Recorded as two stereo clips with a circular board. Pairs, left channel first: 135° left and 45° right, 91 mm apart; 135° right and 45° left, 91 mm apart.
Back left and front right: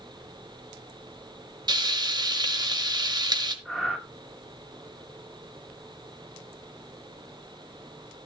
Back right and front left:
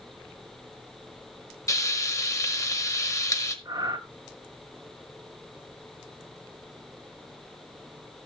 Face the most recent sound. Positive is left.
turn(degrees=40)